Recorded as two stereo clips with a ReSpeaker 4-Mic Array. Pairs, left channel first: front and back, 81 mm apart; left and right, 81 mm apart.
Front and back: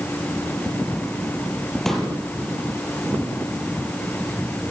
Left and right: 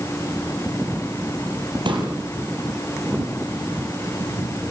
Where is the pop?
85° right, 5 m.